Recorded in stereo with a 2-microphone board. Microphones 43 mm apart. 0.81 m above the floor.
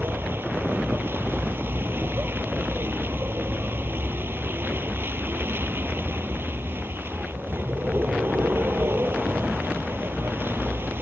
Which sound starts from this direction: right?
A vehicle, at 0.0 s.